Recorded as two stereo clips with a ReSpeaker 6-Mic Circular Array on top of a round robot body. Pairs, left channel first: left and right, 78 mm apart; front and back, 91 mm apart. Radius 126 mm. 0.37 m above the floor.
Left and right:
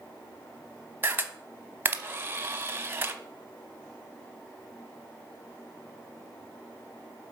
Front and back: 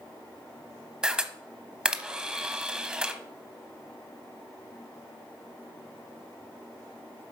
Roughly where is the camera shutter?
Right.